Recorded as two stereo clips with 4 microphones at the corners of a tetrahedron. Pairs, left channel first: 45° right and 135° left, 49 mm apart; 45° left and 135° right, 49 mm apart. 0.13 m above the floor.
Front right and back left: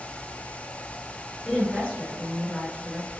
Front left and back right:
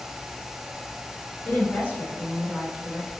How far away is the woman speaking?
About 1.9 m.